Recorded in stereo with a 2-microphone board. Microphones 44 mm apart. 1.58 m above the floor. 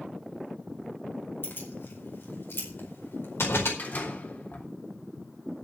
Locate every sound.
1.4 s keys jangling: 60° left (ahead or behind), 5 m; by 3.7 s 75° left (ahead or behind), 4.5 m
3.8 s a door slam: 45° left (ahead or behind), 3.5 m